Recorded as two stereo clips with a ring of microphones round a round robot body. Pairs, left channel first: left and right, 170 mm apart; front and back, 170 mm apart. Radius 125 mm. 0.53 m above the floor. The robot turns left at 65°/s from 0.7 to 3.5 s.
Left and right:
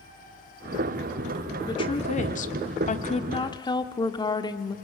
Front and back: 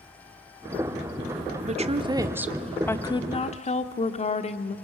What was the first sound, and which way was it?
A woman speaking, 155° left.